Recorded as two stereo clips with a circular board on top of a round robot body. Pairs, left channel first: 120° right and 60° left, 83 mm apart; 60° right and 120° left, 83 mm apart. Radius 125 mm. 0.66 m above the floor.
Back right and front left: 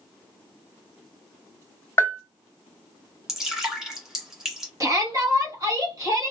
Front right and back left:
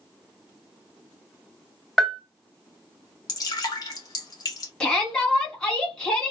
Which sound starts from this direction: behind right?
A bell, at 2.0 s.